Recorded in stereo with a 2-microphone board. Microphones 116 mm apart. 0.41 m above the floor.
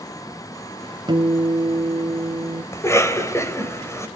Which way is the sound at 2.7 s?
25° left (ahead or behind).